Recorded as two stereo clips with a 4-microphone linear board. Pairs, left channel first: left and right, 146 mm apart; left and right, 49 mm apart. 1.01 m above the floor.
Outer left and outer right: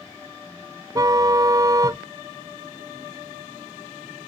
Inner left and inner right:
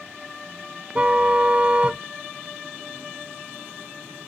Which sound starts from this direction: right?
A car horn, at 0.9 s.